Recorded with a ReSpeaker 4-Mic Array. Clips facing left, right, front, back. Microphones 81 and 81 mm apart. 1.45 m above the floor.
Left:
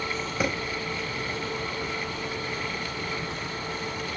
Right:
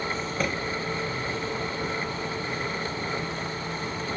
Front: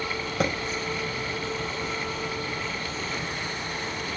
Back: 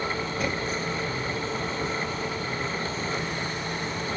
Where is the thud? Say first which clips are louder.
Left 1 dB, front 5 dB; 10° left, 4 m.